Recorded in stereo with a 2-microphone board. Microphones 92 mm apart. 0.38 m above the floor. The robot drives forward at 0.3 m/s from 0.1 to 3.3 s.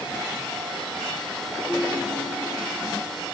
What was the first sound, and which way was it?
A ringtone, 10° left (ahead or behind).